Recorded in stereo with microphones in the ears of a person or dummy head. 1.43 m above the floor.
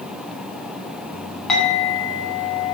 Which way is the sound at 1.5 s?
5° left (ahead or behind).